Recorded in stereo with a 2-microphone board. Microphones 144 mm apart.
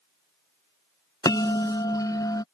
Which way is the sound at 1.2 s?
25° left (ahead or behind).